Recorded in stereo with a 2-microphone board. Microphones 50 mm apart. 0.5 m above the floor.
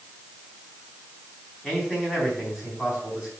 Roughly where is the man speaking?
Centre.